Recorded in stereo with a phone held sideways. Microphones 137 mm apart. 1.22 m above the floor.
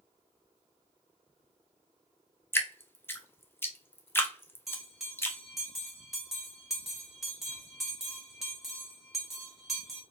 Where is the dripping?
15° left (ahead or behind), 0.7 m.